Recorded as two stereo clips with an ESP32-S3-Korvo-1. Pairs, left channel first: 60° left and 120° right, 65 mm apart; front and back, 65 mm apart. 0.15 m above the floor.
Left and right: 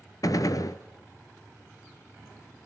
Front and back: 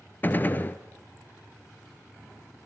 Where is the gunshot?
55° left, 0.8 m.